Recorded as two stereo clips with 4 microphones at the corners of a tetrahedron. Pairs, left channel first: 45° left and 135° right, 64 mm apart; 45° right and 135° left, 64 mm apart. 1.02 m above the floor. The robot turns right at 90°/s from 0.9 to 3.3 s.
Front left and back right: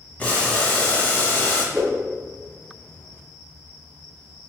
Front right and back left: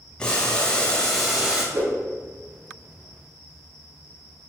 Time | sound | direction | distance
0.2 | boiling | 15° left | 0.9 m
1.7 | a whoosh | 140° left | 1.6 m